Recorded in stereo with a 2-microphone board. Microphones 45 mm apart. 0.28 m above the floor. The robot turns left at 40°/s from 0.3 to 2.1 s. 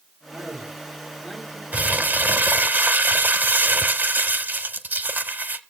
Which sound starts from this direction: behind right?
A man speaking, at 0.3 s.